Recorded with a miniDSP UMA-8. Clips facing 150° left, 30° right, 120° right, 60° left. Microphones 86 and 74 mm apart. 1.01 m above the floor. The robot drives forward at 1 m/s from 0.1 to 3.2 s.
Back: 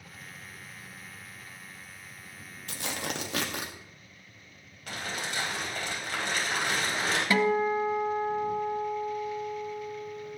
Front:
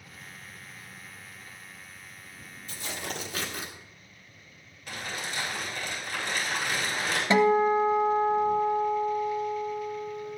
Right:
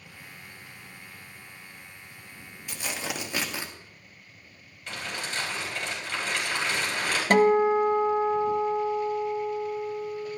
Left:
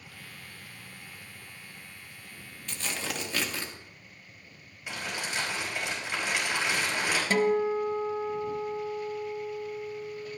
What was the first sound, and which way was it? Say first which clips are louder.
Tearing paper: back 2 dB, right 1 dB; 160° left.